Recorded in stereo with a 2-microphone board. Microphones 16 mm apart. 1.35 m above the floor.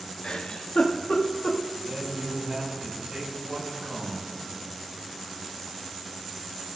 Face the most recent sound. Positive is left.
turn(degrees=-60)  # may be behind; listen again after turning